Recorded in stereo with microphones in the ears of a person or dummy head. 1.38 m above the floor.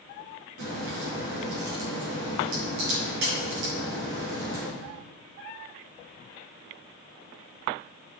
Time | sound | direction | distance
0.6 | a crack | 55° right (ahead or behind) | 5.5 m